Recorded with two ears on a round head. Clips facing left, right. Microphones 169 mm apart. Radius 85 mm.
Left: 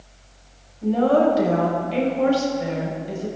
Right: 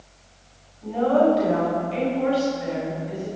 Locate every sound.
0.8 s a woman speaking: 60° left (ahead or behind), 5.5 m